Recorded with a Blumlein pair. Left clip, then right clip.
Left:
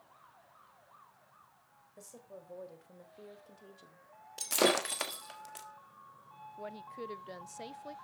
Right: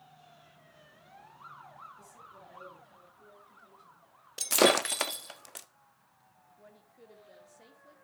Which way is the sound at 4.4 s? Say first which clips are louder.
Right 5 dB; 15° right.